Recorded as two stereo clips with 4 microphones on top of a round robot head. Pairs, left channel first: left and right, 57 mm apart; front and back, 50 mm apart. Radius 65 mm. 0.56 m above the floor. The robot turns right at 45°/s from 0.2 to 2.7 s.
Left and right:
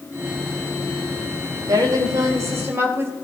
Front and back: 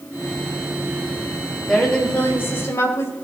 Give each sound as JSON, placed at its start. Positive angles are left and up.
{"t": 1.7, "sound": "a woman speaking", "azimuth_deg": -85, "distance_m": 3.0}